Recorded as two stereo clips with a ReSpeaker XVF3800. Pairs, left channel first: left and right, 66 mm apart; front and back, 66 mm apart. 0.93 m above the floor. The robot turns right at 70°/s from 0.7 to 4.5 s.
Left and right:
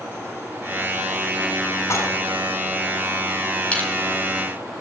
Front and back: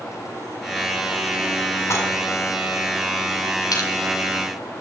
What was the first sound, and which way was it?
Dishes clattering, 45° left.